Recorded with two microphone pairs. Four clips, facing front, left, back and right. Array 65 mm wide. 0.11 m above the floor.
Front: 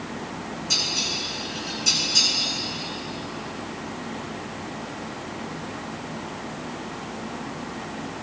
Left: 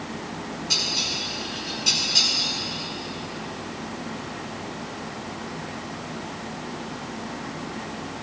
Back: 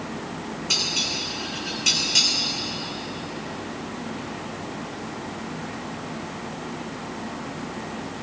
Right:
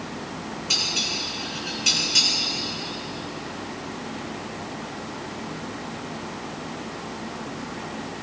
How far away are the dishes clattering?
About 6 m.